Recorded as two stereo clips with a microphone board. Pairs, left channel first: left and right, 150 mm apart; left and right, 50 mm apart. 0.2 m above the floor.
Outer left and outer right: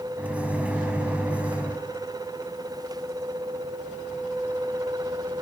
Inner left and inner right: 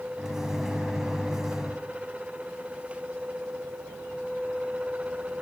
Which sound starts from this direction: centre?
A microwave, at 0.2 s.